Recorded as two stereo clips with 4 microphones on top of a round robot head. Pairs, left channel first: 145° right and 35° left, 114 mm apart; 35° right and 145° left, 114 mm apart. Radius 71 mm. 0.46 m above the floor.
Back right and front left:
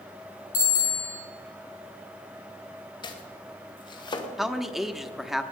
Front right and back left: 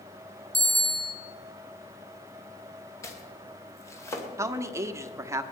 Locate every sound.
0.5 s a bicycle bell: 125° right, 6.5 m
3.0 s chopping: 100° right, 2 m
4.4 s a man speaking: 120° left, 1.1 m